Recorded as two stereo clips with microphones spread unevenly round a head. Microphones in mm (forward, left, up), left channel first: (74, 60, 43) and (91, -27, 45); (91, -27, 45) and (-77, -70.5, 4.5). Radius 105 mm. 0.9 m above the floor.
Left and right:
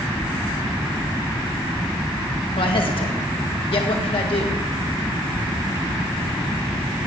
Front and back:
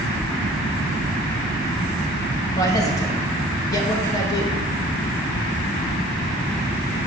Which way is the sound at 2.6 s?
90° left.